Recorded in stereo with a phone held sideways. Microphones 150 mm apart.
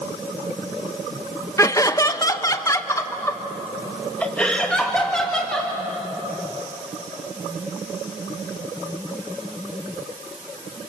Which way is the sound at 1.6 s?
20° left (ahead or behind).